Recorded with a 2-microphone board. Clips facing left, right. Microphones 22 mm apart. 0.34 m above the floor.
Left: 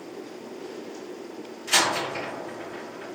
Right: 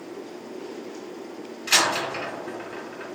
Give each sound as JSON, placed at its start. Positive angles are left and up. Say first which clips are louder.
{"t": 1.7, "sound": "a door slam", "louder": "right 2 dB", "side_deg": -70, "distance_m": 2.5}